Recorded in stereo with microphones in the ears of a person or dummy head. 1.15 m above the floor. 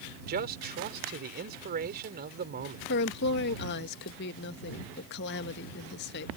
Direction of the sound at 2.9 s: 60° left (ahead or behind).